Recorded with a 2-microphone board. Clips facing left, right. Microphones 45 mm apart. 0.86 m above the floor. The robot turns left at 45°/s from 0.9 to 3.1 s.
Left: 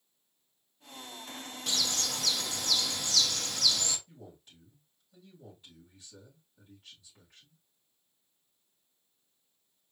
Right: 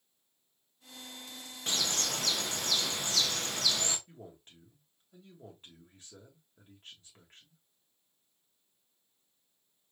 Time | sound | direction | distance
1.7 | a bird | 65° right | 1.0 m
4.1 | a man speaking | 40° right (ahead or behind) | 3 m